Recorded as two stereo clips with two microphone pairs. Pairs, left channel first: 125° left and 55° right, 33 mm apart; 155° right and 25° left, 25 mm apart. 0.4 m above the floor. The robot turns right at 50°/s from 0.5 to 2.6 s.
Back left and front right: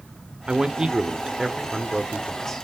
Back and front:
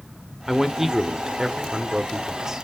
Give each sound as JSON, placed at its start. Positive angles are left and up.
{"t": 0.5, "sound": "a man speaking", "azimuth_deg": -40, "distance_m": 0.9}